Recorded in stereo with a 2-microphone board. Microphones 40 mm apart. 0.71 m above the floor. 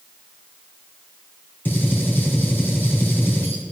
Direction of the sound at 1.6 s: 50° left (ahead or behind).